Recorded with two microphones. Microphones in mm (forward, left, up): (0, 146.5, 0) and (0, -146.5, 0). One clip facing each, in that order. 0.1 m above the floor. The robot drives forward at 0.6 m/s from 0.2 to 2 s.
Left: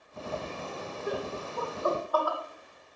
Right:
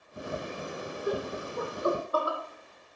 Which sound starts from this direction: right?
Laughter, at 1.1 s.